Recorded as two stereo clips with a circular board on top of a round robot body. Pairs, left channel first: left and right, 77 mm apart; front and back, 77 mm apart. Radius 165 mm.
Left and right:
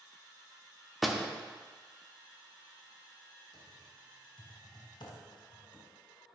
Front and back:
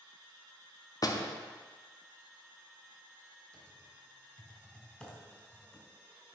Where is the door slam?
Straight ahead, 1.1 m.